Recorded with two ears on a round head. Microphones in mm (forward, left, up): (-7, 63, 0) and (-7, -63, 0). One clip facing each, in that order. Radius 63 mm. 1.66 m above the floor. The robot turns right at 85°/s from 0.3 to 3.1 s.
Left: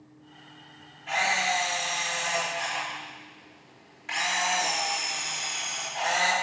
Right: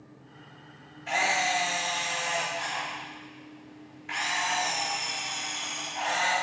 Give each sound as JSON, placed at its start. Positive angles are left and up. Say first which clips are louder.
{"t": 1.1, "sound": "a camera shutter", "louder": "even", "azimuth_deg": -60, "distance_m": 3.0}